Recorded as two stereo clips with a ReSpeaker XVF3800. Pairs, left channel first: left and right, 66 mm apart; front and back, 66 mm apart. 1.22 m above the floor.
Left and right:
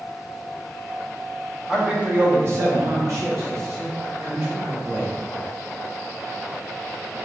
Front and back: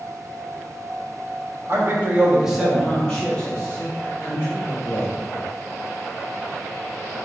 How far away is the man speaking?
About 0.7 m.